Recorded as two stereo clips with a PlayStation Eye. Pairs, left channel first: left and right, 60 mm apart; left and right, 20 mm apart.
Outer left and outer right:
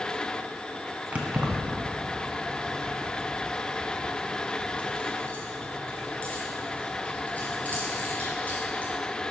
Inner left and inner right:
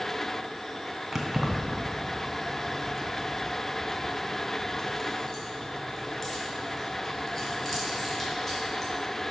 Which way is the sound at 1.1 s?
25° right (ahead or behind).